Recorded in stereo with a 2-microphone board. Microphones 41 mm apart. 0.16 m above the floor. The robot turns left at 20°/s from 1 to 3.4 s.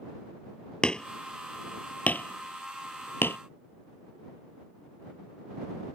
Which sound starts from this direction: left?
Hammering, at 0.8 s.